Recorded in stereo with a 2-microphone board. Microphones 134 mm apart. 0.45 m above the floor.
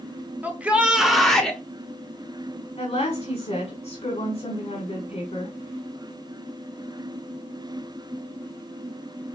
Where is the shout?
10° right (ahead or behind), 0.8 m; by 1.6 s 10° left (ahead or behind), 0.7 m.